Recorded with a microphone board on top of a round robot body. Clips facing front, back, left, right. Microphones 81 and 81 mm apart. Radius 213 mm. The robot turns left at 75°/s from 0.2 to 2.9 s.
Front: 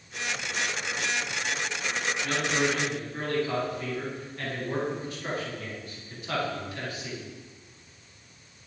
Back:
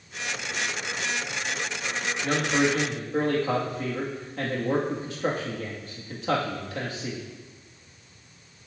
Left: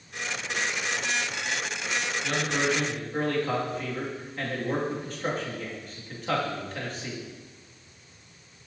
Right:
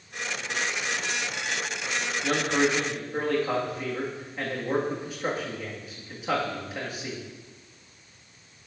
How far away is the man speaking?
About 1.8 m.